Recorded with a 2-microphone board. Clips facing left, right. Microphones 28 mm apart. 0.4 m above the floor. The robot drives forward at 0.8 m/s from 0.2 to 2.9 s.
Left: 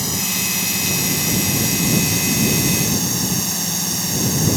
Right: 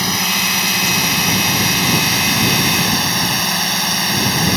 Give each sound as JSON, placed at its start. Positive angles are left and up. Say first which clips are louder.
{"t": 0.0, "sound": "a drone", "louder": "right 6 dB", "side_deg": -40}